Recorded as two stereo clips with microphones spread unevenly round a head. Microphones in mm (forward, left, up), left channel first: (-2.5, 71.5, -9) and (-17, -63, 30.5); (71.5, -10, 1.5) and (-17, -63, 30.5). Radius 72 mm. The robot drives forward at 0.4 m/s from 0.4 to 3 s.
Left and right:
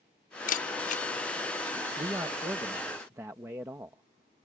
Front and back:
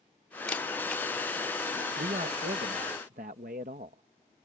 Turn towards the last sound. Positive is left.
turn(degrees=-165)